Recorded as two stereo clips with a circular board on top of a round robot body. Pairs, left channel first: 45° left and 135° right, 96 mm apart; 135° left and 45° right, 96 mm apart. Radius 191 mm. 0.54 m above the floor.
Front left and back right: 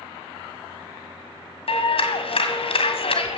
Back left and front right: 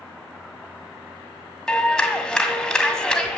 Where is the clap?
50° left, 1.9 m.